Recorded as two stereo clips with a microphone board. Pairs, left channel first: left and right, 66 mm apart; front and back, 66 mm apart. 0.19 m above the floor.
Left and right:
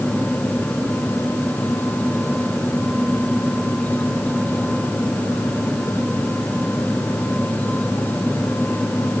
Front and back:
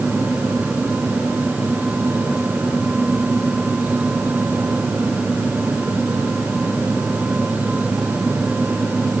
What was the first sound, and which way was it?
Only background noise.